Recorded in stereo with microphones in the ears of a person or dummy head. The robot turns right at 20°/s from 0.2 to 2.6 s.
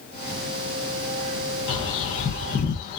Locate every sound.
1.7 s a bird: 30° left (ahead or behind), 1.0 m; by 3.0 s 45° left (ahead or behind), 1.0 m